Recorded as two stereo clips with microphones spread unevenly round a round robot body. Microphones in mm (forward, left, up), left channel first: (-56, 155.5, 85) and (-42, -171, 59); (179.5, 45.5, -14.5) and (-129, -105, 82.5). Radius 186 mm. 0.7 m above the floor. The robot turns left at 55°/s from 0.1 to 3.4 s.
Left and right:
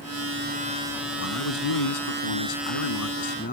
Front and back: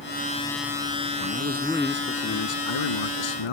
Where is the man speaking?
150° left; by 3.5 s 25° left.